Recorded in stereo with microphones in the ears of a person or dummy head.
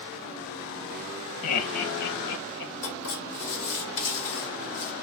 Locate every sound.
1.4 s laughter: 40° left (ahead or behind), 0.6 m; by 2.7 s 60° left (ahead or behind), 1.3 m
2.8 s writing: 60° left (ahead or behind), 1.4 m